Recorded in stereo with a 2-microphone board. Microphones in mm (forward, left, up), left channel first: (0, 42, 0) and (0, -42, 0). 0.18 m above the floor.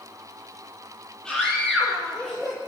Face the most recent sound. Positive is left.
turn(degrees=0)  # may be behind; listen again after turning